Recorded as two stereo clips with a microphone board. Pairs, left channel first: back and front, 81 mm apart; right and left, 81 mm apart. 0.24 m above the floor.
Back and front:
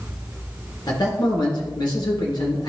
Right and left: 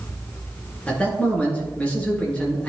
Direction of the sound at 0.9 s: 165° right.